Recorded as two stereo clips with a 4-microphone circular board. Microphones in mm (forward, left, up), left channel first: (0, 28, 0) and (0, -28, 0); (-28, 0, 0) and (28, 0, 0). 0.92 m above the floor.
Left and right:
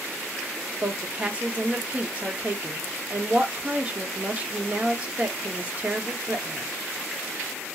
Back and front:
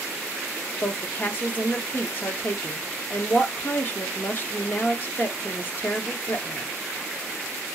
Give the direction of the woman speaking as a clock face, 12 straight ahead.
5 o'clock.